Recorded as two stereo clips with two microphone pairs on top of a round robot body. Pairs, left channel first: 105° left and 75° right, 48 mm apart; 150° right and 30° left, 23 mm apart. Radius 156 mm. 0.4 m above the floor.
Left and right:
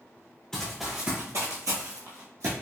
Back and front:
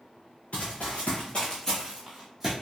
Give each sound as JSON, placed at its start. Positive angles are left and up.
{"t": 0.5, "sound": "running footsteps", "azimuth_deg": -170, "distance_m": 0.7}